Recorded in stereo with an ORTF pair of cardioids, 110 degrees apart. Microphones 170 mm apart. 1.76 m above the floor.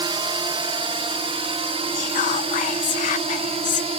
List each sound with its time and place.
0.0 s a drone: 30° right; by 4.0 s 35° right
1.9 s whispering: 50° left